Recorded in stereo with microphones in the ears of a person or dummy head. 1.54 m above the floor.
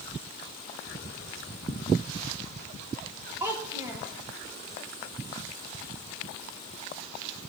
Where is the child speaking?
15° right (ahead or behind), 0.7 m.